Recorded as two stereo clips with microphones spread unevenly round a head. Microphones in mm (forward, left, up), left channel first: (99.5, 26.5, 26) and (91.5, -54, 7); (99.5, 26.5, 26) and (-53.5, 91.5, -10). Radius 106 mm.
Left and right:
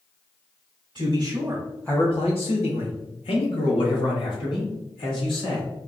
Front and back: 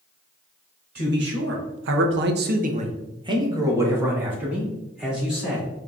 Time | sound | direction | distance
0.9 | a man speaking | 160° right | 1.2 m